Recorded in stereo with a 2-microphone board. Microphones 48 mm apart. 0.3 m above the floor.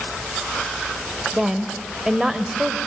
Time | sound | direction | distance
1.3 | a woman speaking | 15° right (ahead or behind) | 1.0 m